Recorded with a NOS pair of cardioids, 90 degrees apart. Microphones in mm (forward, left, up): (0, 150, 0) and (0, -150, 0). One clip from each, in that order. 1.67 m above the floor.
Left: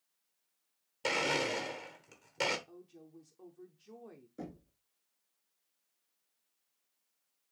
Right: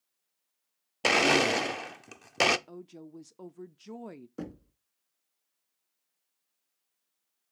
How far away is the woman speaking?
About 0.5 m.